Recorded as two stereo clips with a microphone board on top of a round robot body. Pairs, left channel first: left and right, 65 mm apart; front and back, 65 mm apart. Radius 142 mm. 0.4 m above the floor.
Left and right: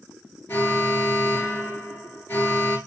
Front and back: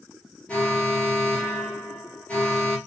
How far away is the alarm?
About 2.5 m.